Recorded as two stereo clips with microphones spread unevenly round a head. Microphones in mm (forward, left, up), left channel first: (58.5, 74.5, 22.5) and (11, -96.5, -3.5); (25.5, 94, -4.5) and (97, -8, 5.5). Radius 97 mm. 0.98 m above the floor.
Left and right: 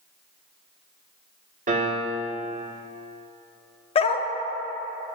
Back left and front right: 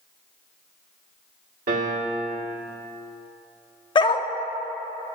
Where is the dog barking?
95° left, 0.5 m.